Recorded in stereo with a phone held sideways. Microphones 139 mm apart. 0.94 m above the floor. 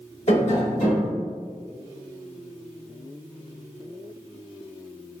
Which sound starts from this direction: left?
Tapping, at 0.3 s.